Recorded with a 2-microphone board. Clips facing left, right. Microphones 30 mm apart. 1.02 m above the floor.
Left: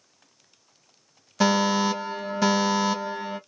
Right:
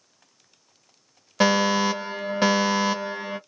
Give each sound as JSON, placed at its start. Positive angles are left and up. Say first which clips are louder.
{"t": 1.4, "sound": "a fire alarm", "louder": "right 1 dB", "side_deg": -35, "distance_m": 2.5}